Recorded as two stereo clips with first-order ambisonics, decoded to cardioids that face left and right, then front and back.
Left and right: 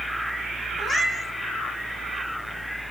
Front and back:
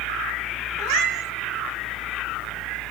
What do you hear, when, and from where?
0.8 s a cat meowing: straight behind, 1.1 m